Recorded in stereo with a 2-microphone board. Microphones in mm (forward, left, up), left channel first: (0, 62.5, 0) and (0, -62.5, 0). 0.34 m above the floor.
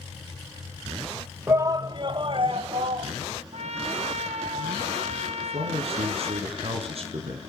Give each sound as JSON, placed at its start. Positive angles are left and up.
{"t": 1.5, "sound": "a shout", "side_deg": -25, "distance_m": 1.0}
{"t": 3.5, "sound": "a trumpet", "side_deg": -70, "distance_m": 1.7}
{"t": 5.4, "sound": "a man speaking", "side_deg": -60, "distance_m": 4.0}